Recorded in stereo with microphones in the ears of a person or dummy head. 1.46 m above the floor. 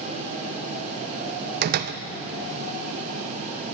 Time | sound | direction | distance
1.6 | a door slam | 50° right (ahead or behind) | 0.6 m